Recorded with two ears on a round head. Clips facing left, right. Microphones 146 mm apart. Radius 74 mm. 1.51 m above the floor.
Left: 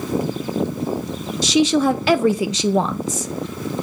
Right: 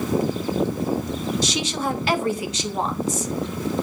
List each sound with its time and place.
1.4 s a woman speaking: 60° left (ahead or behind), 0.6 m